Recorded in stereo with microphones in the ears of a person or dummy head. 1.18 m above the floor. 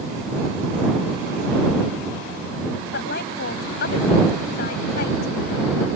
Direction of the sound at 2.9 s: 65° left (ahead or behind).